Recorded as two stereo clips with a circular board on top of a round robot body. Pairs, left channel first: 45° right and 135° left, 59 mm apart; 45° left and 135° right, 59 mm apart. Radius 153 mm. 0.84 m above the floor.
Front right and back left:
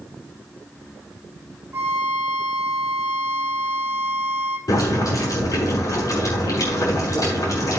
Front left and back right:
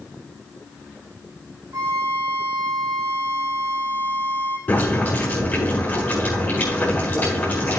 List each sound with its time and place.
1.7 s a violin: 170° right, 1.8 m
4.7 s boiling: 20° right, 6.5 m